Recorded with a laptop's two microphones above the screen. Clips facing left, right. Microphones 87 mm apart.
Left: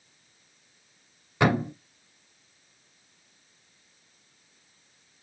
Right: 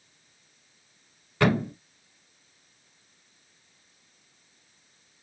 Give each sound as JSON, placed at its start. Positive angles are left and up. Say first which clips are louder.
{"t": 1.4, "sound": "a thud", "louder": "even", "side_deg": 15, "distance_m": 1.1}